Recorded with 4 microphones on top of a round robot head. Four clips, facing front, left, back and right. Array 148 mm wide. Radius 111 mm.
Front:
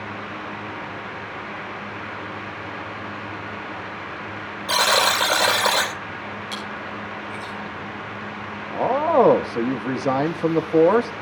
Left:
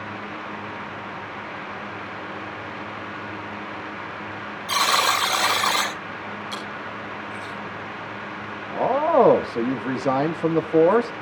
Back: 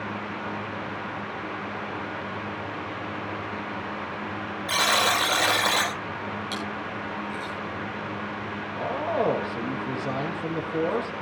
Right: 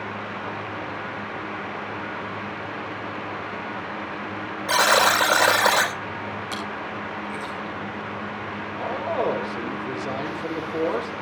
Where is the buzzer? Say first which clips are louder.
Right 3 dB, front 4 dB; 60° right, 4.5 m.